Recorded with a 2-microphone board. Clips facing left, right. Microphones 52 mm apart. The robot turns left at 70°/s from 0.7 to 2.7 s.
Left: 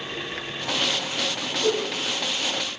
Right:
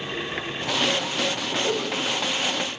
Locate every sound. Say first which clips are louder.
1.6 s a whoosh: left 4 dB; 25° left (ahead or behind), 1.2 m; by 1.8 s 40° left (ahead or behind), 1.2 m